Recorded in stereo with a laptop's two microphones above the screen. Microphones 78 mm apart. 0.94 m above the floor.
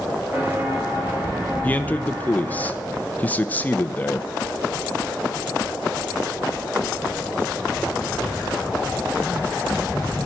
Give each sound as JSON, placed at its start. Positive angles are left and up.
{"t": 0.3, "sound": "footsteps", "side_deg": -25, "distance_m": 4.0}
{"t": 1.6, "sound": "a man speaking", "side_deg": 20, "distance_m": 0.7}